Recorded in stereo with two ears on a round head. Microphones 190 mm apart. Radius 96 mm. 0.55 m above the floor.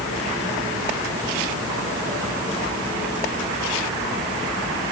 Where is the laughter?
I don't hear laughter.